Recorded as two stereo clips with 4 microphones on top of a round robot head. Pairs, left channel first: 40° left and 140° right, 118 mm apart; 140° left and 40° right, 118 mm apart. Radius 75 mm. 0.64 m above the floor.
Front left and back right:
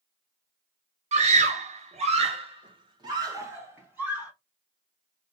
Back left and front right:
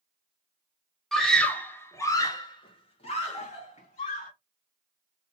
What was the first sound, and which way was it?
A scream, 130° right.